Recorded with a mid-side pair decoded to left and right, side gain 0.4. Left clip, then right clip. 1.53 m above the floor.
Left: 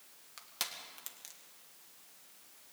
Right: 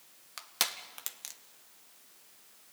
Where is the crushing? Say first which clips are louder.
Right 7 dB; 55° right, 1.8 m.